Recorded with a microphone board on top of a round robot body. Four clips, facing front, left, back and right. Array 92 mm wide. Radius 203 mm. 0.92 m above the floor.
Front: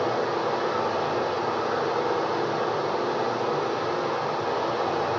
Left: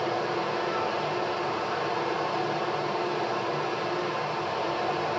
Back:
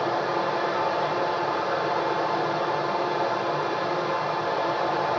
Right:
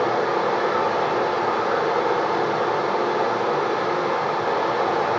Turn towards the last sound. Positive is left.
turn(degrees=-85)